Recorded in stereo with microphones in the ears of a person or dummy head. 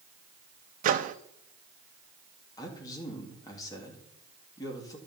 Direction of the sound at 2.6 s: 30° left (ahead or behind).